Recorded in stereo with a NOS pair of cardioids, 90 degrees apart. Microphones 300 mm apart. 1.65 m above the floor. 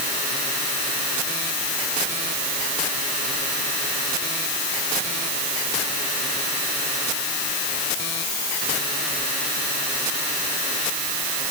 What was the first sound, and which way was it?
Only background noise.